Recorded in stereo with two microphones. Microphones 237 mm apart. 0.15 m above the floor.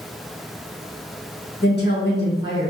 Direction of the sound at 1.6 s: 45° left (ahead or behind).